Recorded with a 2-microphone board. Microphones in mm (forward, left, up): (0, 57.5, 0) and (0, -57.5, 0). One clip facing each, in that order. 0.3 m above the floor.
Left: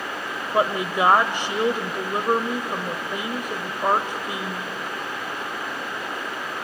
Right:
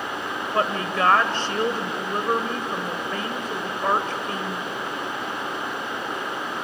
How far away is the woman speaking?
About 0.9 m.